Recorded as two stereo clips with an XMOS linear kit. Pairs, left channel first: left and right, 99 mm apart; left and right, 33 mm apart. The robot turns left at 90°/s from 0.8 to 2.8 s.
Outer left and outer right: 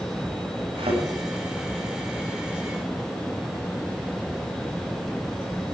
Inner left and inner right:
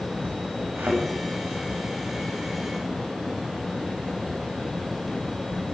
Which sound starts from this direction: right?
A thud, at 0.8 s.